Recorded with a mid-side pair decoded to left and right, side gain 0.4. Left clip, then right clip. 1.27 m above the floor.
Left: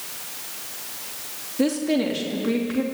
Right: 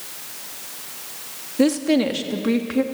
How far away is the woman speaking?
About 3 m.